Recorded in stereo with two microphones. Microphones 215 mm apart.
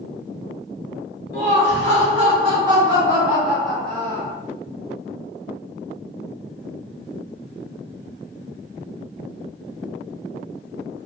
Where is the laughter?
40° right (ahead or behind), 1.5 m; by 4.3 s 15° left (ahead or behind), 1.1 m.